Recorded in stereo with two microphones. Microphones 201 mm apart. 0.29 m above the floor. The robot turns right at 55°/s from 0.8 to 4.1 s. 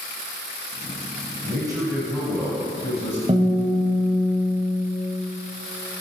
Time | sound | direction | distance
1.4 | a man speaking | 40° right | 1.8 m
3.3 | a guitar | 30° right (ahead or behind) | 1.3 m